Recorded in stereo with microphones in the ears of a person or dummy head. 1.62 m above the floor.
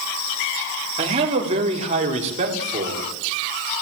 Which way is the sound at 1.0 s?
35° right (ahead or behind).